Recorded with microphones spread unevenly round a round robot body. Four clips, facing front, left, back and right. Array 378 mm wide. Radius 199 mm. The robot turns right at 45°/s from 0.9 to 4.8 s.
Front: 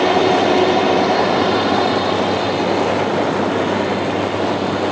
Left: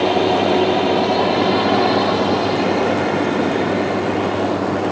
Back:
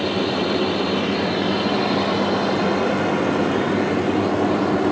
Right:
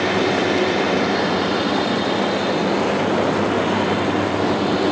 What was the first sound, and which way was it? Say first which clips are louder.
A drone: left 3 dB, front 8 dB; 25° left.